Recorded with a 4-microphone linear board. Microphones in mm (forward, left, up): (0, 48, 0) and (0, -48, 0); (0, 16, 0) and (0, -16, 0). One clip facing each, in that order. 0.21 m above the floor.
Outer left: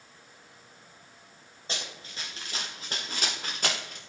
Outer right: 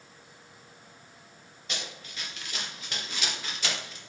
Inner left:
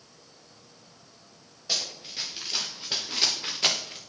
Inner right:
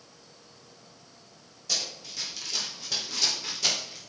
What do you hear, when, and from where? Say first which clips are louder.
1.7 s running footsteps: outer left 1 dB, inner left 1 dB; 30° left (ahead or behind), 5 m; by 4.0 s 55° left (ahead or behind), 2.5 m